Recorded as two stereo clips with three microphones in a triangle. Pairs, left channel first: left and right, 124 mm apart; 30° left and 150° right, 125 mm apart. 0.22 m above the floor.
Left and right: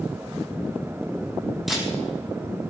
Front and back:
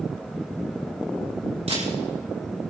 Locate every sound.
1.7 s a camera shutter: straight behind, 8 m